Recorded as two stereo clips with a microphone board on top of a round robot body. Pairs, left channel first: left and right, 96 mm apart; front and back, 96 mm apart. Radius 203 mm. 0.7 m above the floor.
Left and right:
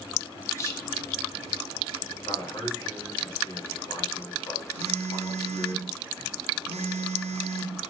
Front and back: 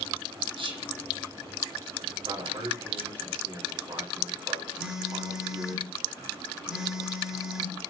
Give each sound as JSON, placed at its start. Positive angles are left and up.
{"t": 0.6, "sound": "whispering", "azimuth_deg": 150, "distance_m": 2.5}
{"t": 2.2, "sound": "a man speaking", "azimuth_deg": 145, "distance_m": 3.5}
{"t": 4.8, "sound": "a phone buzzing", "azimuth_deg": -95, "distance_m": 1.0}